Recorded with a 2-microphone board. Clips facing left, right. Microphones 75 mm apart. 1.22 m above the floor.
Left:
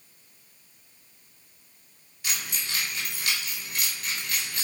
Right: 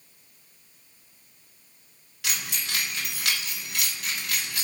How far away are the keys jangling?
About 2.0 m.